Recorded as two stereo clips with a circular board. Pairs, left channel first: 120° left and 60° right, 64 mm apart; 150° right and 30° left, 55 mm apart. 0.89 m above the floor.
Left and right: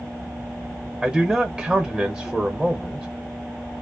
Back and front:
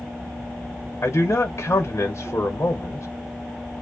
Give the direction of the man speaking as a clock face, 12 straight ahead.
5 o'clock.